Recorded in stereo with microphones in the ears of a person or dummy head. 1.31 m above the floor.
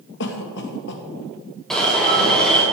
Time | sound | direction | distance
0.2 | a cough | 60° left (ahead or behind) | 2 m
1.7 | an alarm | 5° left (ahead or behind) | 3 m